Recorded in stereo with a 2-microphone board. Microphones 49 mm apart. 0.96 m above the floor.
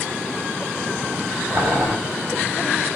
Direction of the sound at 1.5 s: 40° right (ahead or behind).